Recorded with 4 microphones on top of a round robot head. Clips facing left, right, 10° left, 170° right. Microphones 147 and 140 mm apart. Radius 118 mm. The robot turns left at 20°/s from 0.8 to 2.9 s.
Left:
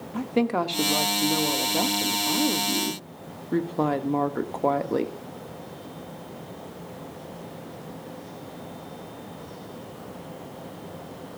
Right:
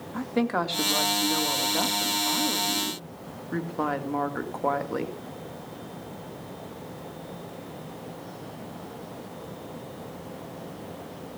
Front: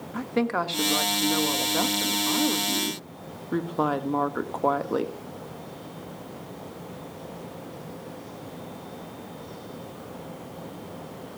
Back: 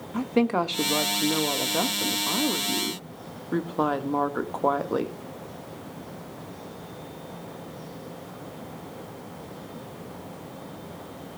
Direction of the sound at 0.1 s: 140° left.